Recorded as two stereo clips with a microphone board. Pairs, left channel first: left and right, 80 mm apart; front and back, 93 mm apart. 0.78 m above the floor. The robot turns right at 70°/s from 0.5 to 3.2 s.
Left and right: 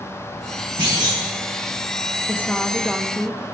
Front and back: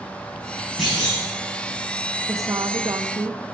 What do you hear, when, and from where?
0.8 s a clunk: 95° right, 7 m; by 1.2 s 65° right, 7 m
2.3 s a woman speaking: 140° left, 1.0 m; by 3.4 s 155° right, 1.0 m